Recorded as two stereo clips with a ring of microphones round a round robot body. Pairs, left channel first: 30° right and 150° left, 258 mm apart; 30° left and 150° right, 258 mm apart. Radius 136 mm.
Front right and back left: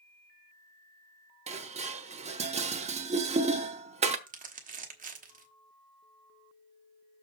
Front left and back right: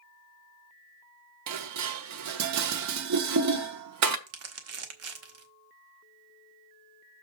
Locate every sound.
1.5 s dishes clattering: 145° right, 0.8 m
4.3 s crumpling: 155° right, 1.5 m